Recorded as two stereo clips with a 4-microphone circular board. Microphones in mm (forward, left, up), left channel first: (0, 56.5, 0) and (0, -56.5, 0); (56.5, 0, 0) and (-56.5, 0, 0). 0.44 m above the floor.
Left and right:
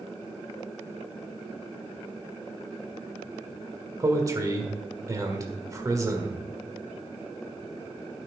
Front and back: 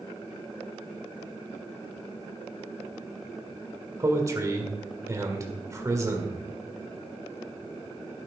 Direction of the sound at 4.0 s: 135° right.